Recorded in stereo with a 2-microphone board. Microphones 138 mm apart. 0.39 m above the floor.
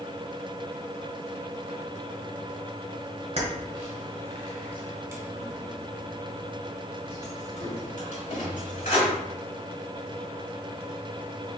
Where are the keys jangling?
55° right (ahead or behind), 1.5 m; by 9.1 s 70° left (ahead or behind), 1.9 m.